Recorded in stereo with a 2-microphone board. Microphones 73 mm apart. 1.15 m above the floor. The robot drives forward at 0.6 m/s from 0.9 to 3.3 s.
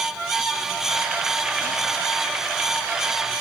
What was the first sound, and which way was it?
Only background noise.